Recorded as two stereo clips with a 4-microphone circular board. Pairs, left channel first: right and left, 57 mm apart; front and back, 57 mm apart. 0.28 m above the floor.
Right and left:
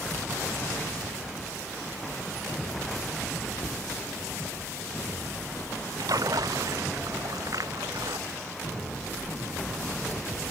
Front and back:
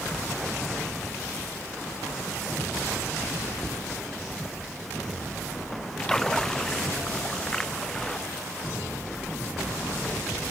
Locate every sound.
3.6 s a cupboard door: 70° right
6.0 s a splash: 80° left